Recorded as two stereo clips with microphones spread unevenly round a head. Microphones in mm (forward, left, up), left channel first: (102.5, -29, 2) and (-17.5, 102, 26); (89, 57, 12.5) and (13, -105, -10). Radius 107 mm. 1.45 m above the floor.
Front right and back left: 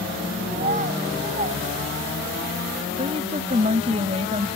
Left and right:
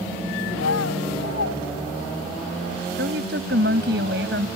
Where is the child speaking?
90° left.